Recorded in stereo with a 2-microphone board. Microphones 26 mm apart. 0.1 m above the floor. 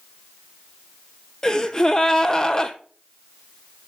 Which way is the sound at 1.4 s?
25° left (ahead or behind).